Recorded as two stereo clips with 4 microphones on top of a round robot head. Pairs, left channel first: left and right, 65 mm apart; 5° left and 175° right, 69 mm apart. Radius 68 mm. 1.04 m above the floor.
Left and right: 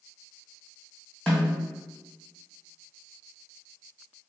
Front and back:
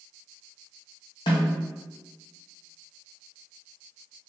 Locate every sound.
1.3 s a snare drum: 15° left, 1.1 m